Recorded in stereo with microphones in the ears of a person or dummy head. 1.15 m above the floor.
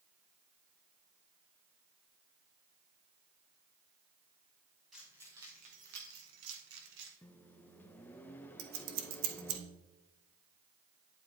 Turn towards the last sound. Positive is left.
turn(degrees=-75)  # may be behind; listen again after turning